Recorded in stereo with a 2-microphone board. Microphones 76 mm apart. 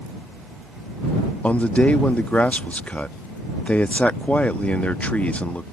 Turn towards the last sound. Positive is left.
turn(degrees=15)  # may be behind; listen again after turning